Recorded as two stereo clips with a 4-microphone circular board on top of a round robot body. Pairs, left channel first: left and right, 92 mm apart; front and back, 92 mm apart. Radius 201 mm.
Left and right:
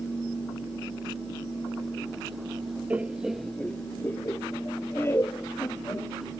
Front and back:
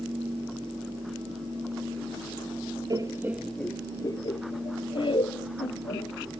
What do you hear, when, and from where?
2.9 s laughter: 160° right; by 6.3 s 25° left